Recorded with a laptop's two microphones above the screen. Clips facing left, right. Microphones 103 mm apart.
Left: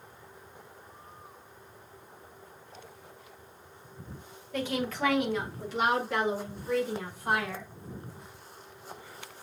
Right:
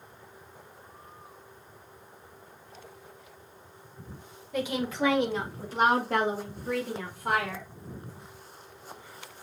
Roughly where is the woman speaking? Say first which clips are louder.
Right 2 dB; centre.